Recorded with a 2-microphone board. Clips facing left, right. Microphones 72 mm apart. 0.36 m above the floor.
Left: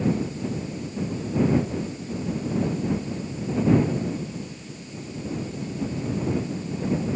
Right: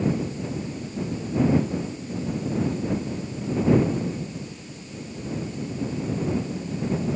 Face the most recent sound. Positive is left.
No sound to turn to.